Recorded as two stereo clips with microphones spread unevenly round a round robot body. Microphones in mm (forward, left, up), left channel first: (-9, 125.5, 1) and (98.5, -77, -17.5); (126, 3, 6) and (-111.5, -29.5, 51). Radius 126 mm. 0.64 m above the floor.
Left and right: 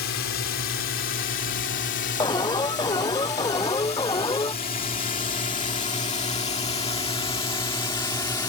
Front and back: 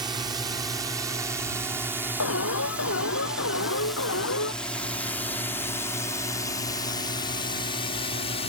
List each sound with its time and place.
0.0 s a drone: 110° left; by 8.5 s 50° left
2.2 s an alarm: 45° left